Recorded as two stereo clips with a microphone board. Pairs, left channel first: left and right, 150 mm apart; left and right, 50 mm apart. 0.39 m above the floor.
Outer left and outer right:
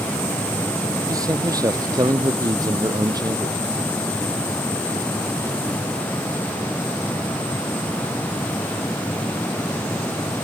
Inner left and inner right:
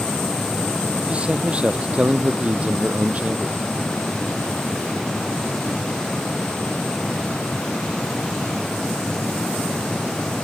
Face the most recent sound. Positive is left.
turn(degrees=-25)  # may be behind; listen again after turning